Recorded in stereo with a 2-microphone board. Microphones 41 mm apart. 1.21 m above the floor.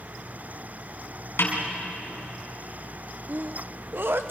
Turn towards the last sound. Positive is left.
turn(degrees=-60)  # may be behind; listen again after turning